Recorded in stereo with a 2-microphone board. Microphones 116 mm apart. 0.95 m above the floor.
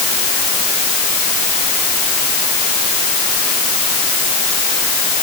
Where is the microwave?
I don't hear a microwave.